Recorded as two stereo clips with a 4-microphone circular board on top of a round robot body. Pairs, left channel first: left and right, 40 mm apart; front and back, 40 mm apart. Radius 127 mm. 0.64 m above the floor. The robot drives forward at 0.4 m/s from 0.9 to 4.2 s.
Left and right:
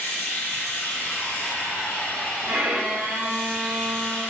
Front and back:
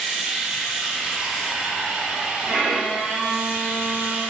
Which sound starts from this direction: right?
A violin, at 2.5 s.